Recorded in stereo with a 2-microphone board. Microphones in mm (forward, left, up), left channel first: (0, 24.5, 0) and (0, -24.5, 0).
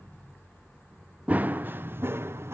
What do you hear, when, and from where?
1.3 s running footsteps: 30° right (ahead or behind), 0.8 m; by 2.5 s 60° right (ahead or behind), 1.4 m